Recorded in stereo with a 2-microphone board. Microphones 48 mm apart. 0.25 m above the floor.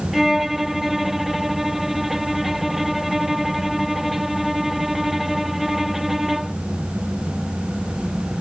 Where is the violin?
5° right (ahead or behind).